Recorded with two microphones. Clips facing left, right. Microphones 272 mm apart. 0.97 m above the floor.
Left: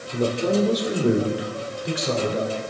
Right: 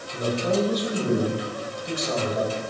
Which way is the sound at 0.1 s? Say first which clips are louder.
Left 3 dB; 60° left (ahead or behind).